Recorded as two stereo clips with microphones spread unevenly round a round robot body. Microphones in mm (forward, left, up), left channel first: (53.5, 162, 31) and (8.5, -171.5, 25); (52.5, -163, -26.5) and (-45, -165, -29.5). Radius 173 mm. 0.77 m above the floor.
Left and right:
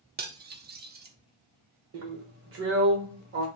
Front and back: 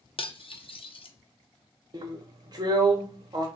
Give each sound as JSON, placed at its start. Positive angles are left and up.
{"t": 0.2, "sound": "cutlery clinking", "azimuth_deg": -35, "distance_m": 0.7}
{"t": 1.9, "sound": "a drill", "azimuth_deg": -145, "distance_m": 0.9}